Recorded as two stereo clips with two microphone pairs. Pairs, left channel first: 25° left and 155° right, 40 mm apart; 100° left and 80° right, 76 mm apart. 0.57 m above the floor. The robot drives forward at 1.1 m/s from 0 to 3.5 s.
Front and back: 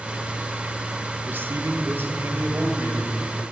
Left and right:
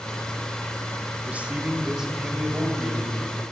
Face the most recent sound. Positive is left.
turn(degrees=-175)